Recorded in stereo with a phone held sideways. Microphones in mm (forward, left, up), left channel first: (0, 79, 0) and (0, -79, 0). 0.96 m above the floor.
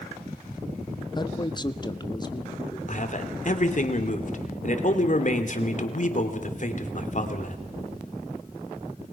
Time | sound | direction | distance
1.1 | a man speaking | 30° left (ahead or behind) | 0.7 m
2.9 | a man speaking | 55° left (ahead or behind) | 2.5 m